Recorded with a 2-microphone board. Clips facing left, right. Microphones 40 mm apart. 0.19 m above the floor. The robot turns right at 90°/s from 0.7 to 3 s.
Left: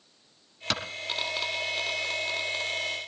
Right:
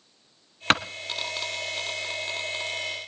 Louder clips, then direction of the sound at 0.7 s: Right 9 dB; 50° right (ahead or behind).